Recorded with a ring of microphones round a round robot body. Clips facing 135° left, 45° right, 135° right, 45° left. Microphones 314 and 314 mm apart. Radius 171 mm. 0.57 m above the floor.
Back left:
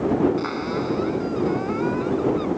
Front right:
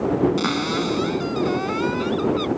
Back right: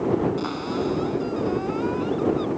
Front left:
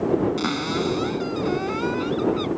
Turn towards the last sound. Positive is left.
turn(degrees=-5)